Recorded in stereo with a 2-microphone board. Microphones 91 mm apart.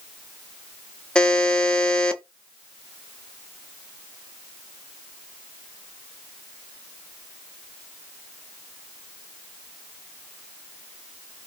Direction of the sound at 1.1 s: 10° left (ahead or behind).